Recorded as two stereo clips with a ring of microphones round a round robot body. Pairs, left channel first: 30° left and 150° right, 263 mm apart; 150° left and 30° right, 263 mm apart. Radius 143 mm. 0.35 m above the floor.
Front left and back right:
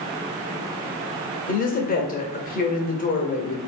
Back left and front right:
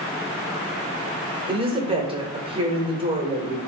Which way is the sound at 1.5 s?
20° left.